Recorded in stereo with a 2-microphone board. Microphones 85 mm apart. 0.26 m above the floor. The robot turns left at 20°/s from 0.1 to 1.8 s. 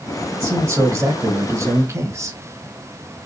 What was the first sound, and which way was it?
A man speaking, 35° right (ahead or behind).